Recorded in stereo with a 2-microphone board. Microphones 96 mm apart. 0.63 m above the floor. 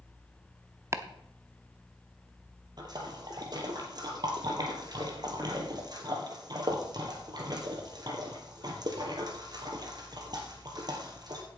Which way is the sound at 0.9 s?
30° right (ahead or behind).